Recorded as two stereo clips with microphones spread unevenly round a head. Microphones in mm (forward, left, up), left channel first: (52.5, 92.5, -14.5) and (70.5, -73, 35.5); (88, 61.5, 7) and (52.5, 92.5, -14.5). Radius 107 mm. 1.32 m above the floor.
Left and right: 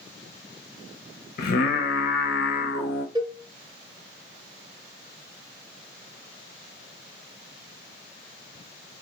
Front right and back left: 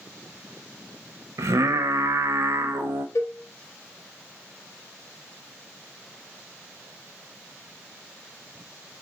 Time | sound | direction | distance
1.4 | singing | 130° left | 0.7 m
3.1 | a cowbell | 10° right | 0.9 m